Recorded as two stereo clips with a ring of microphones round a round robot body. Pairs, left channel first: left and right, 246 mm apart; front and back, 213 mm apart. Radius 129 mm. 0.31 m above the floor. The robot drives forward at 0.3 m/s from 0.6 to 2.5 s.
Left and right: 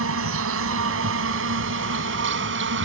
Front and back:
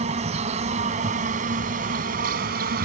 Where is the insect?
120° right; by 2.9 s 130° right.